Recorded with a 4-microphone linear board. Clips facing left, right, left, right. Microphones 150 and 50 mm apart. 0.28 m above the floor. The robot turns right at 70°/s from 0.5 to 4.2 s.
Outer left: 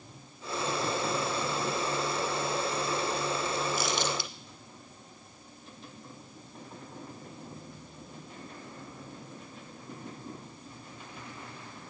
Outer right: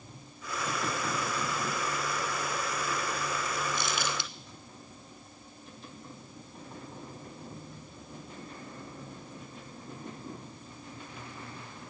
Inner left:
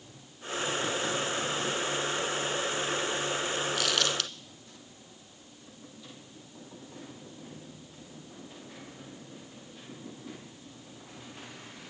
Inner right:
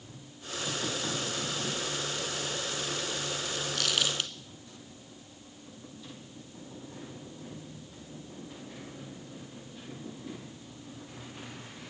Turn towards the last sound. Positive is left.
turn(degrees=-25)  # may be behind; listen again after turning